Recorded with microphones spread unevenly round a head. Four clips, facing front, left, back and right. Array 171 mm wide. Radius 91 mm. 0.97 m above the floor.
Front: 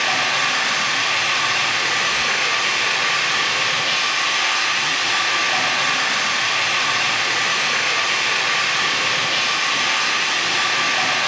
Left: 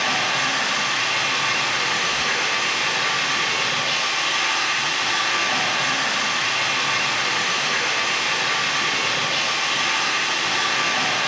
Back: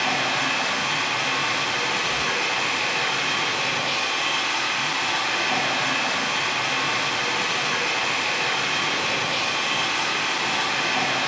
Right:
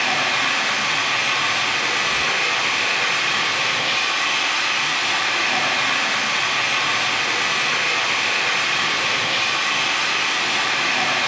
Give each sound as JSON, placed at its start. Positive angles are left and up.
{"t": 0.0, "sound": "running water", "azimuth_deg": -170, "distance_m": 1.8}